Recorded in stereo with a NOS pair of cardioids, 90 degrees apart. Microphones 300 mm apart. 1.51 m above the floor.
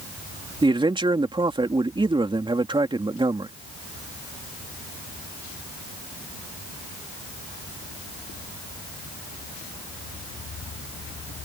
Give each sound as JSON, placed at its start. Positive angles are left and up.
{"t": 0.6, "sound": "a man speaking", "azimuth_deg": -15}